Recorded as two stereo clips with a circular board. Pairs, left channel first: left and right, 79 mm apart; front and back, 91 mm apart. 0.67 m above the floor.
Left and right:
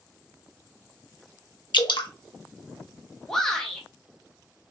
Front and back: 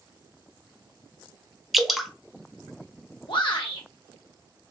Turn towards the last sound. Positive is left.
turn(degrees=10)